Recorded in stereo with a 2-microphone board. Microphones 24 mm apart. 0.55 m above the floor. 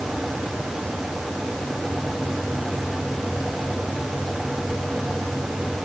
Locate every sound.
Only background noise.